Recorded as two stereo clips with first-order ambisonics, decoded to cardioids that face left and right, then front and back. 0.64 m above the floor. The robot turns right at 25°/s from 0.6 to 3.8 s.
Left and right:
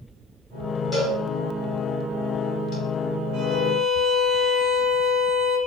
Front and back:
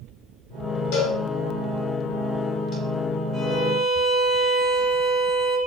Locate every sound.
0.9 s a cowbell: 5° left, 1.4 m; by 2.7 s 50° left, 1.4 m
3.3 s a violin: 90° right, 2 m; by 5.6 s 80° right, 2 m